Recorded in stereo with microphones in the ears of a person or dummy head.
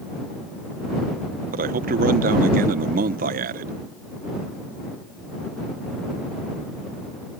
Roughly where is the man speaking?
Right.